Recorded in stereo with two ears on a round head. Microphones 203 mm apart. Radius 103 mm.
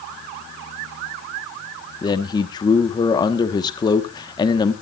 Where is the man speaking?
20° left (ahead or behind), 1.2 m.